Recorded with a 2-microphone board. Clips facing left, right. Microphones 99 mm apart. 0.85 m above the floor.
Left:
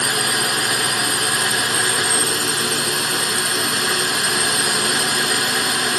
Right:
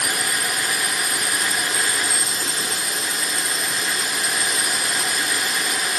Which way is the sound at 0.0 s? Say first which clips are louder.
Left 4 dB; 65° left (ahead or behind).